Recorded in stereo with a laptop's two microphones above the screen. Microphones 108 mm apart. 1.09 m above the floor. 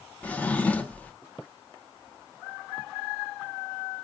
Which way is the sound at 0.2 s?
15° left (ahead or behind).